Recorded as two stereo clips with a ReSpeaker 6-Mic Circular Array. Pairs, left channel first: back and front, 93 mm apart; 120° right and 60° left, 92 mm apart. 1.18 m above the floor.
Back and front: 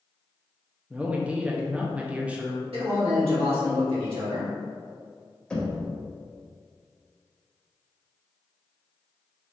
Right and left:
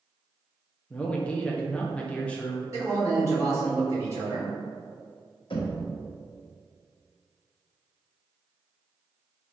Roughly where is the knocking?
Right.